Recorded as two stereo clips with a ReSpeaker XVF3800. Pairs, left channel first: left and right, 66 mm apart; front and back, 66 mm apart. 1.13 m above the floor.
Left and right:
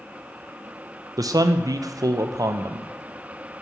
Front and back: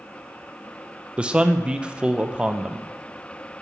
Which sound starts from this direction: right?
A man speaking, at 1.2 s.